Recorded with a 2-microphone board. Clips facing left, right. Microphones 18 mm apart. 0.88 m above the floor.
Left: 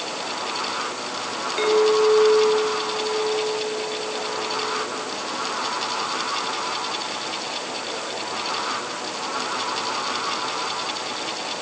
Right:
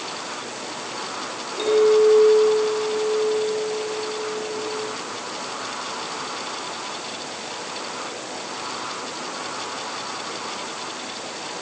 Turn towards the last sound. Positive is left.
turn(degrees=55)  # may be behind; listen again after turning